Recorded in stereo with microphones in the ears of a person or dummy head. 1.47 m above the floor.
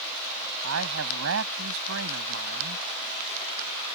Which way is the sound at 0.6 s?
85° right.